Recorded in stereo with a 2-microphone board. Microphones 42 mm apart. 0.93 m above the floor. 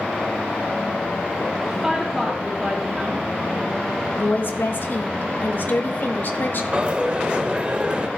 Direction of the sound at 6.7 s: 25° right (ahead or behind).